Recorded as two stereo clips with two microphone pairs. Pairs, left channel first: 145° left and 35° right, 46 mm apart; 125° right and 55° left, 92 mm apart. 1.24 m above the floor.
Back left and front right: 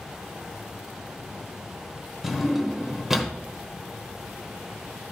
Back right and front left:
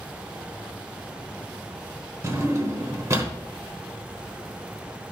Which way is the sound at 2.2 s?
40° left.